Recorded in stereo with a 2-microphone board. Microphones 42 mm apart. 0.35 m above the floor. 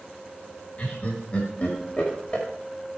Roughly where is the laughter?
Left.